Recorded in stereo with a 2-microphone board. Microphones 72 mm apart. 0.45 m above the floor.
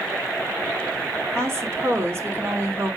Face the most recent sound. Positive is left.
turn(degrees=-35)  # may be behind; listen again after turning